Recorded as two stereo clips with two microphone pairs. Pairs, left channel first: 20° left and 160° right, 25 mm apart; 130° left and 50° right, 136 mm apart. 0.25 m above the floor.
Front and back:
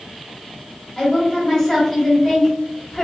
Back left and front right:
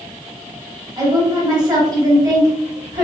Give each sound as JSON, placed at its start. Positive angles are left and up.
{"t": 1.0, "sound": "a woman speaking", "azimuth_deg": -35, "distance_m": 1.0}